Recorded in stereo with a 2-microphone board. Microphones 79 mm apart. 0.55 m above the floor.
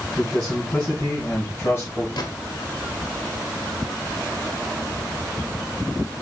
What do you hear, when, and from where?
0.2 s a man speaking: 10° left (ahead or behind), 5 m; by 2.1 s 35° left (ahead or behind), 4.5 m
2.2 s a gunshot: 65° left (ahead or behind), 1.6 m